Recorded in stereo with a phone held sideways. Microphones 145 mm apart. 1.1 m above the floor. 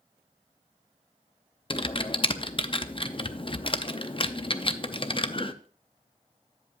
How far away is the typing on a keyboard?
About 0.6 m.